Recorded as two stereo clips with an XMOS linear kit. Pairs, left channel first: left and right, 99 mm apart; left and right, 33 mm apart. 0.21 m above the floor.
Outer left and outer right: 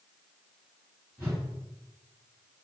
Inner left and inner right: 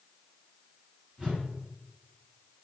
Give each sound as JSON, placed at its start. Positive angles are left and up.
{"t": 1.2, "sound": "a whoosh", "side_deg": -20, "distance_m": 1.5}